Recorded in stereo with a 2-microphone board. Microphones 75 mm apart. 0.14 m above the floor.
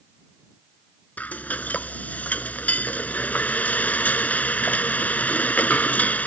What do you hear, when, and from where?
1.2 s frying: 20° left (ahead or behind)